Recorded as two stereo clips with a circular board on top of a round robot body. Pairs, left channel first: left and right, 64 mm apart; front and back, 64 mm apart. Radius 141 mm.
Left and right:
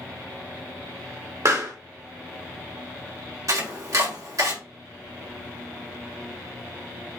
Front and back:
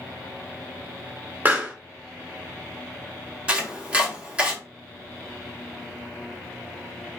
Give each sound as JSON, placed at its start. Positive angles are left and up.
{"t": 1.4, "sound": "a pop", "azimuth_deg": -120, "distance_m": 2.5}
{"t": 3.5, "sound": "chopping", "azimuth_deg": -110, "distance_m": 2.0}